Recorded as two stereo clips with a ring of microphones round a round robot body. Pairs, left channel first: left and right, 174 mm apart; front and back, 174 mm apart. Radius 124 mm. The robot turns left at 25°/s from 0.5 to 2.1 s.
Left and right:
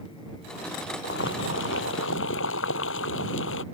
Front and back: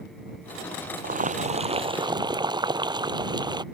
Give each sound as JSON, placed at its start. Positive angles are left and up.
{"t": 1.0, "sound": "boiling", "azimuth_deg": 140}